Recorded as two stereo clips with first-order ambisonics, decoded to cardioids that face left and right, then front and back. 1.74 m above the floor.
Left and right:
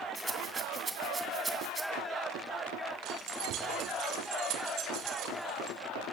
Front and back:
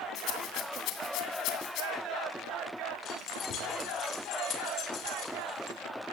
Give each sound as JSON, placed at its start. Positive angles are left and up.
{"t": 0.1, "sound": "a rattle", "azimuth_deg": -15, "distance_m": 2.5}
{"t": 3.0, "sound": "keys jangling", "azimuth_deg": -50, "distance_m": 4.0}